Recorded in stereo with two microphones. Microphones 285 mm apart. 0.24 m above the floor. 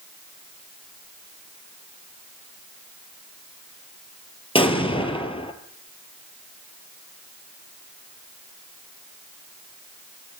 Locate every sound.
4.5 s an explosion: 20° left (ahead or behind), 1.1 m